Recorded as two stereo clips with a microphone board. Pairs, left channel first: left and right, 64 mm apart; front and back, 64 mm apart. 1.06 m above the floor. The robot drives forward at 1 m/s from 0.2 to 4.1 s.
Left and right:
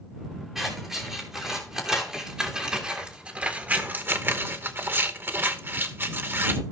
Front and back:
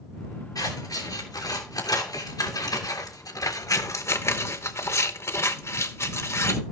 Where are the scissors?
10° right, 4 m; by 6.6 s 40° right, 0.9 m.